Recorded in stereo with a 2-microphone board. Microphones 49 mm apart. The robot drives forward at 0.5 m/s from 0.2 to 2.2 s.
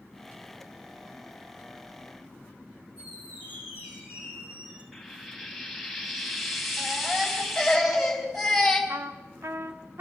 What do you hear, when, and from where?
3.0 s a squeak: 30° right (ahead or behind), 7.5 m
4.9 s frying: centre (ahead or behind), 3 m
6.8 s a baby crying: centre (ahead or behind), 4.5 m
8.9 s a trumpet: 70° right (ahead or behind), 1.1 m